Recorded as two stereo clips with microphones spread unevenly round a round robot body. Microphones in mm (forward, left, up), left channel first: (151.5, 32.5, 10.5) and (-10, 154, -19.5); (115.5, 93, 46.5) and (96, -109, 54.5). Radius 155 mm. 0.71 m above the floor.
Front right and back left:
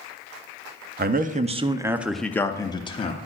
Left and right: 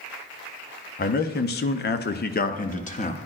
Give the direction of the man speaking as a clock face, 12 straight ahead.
8 o'clock.